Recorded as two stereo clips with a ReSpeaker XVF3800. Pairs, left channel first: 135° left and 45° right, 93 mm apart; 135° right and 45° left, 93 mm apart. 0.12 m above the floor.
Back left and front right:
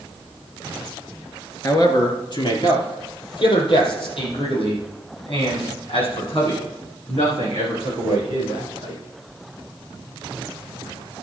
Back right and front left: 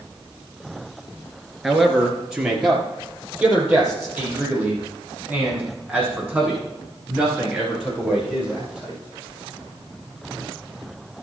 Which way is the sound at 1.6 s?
130° left.